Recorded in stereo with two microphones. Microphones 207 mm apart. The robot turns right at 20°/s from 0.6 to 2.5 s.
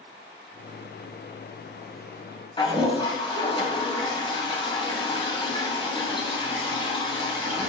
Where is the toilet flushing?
25° left (ahead or behind), 0.9 m.